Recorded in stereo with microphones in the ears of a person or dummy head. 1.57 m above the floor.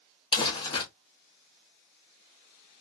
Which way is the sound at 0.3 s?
30° left (ahead or behind).